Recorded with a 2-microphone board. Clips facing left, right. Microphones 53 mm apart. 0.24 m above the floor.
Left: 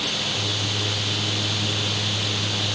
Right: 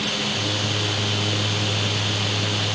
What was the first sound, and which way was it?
Only background noise.